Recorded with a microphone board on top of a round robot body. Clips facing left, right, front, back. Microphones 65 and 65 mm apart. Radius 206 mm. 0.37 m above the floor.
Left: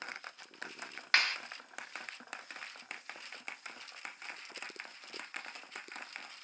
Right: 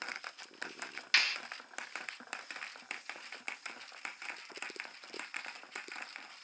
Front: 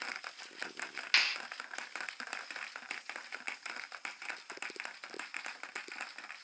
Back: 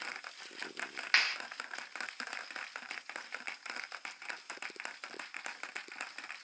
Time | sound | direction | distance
1.1 | a clap | 130° left | 1.6 m